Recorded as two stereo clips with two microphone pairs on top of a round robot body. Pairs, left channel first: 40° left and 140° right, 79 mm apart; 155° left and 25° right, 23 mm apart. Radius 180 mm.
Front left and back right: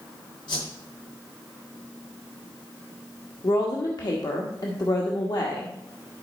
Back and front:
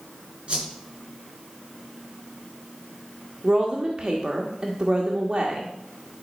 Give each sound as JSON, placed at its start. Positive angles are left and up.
{"t": 0.5, "sound": "a whoosh", "azimuth_deg": 20, "distance_m": 5.5}
{"t": 3.4, "sound": "a woman speaking", "azimuth_deg": 15, "distance_m": 1.5}